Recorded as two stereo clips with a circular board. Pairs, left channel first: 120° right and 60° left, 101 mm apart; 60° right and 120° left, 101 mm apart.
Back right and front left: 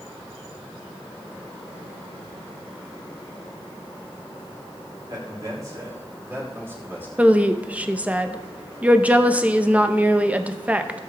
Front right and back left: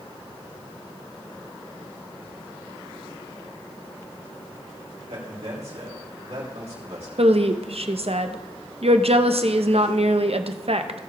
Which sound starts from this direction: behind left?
A woman speaking, at 7.2 s.